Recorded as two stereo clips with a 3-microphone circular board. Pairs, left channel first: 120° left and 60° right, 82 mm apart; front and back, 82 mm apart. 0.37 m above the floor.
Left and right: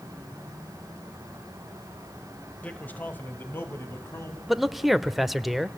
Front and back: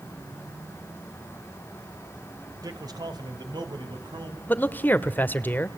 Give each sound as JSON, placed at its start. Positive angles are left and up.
{"t": 2.6, "sound": "a man speaking", "azimuth_deg": -170, "distance_m": 1.8}
{"t": 4.5, "sound": "a man speaking", "azimuth_deg": 25, "distance_m": 0.9}